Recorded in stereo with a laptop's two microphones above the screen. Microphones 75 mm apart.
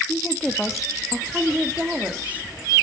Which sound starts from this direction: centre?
A woman speaking, at 0.1 s.